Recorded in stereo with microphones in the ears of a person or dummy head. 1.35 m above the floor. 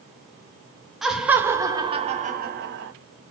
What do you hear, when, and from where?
1.0 s laughter: 5° right (ahead or behind), 1.2 m; by 2.9 s 65° right (ahead or behind), 1.1 m